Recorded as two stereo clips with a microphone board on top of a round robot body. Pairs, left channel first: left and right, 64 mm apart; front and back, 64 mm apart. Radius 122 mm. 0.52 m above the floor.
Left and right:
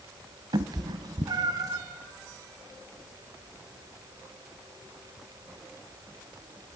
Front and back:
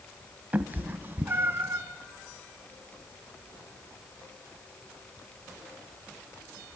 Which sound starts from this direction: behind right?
A cat meowing, at 0.5 s.